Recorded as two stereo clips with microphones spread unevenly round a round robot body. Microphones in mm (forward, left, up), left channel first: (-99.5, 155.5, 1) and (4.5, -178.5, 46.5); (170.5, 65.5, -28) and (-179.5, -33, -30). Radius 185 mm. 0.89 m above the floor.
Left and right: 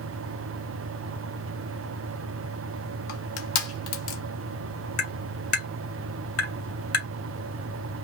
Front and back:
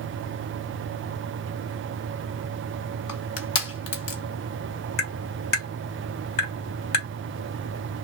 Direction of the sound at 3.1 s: 55° left.